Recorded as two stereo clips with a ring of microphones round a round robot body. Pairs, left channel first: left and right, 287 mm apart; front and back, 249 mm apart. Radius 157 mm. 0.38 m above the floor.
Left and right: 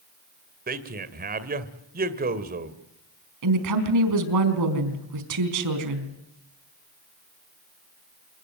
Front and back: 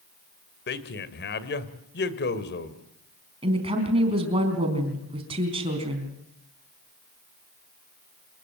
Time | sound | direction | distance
0.7 | a man speaking | 40° right | 1.9 m
3.4 | a woman speaking | 110° right | 4 m